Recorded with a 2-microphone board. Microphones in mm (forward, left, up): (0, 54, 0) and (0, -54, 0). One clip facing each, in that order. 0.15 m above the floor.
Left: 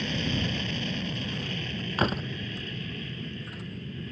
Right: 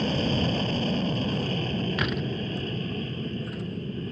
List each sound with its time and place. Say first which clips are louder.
0.0 s an aircraft: right 5 dB; 40° right (ahead or behind)
2.0 s a door slam: left 1 dB; 35° left (ahead or behind)